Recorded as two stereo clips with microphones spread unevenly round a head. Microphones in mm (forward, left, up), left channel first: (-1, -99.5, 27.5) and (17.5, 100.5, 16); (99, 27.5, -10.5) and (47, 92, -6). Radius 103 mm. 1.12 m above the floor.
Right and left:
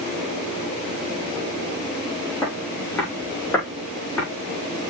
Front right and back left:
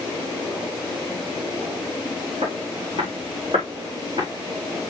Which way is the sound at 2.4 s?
175° right.